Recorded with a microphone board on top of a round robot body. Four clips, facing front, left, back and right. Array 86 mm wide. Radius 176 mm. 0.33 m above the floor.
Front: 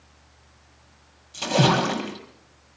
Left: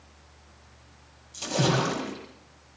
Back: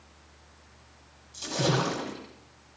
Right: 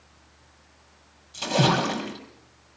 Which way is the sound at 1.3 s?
20° right.